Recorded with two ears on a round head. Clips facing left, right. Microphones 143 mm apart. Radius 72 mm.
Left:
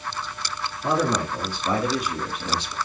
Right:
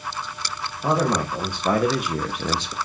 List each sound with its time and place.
0.8 s a man speaking: 35° right (ahead or behind), 1.9 m; by 2.8 s 65° right (ahead or behind), 0.9 m